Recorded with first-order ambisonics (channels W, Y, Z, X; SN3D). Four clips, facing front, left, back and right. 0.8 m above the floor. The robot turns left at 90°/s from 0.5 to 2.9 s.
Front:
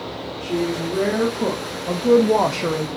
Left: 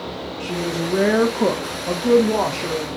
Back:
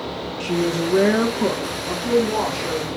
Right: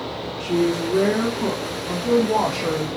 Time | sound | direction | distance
0.4 | a woman speaking | 175° left | 0.8 m